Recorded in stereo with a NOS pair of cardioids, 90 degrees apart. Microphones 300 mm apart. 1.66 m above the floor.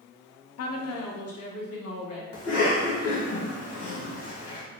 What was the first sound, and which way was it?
A woman speaking, 60° left.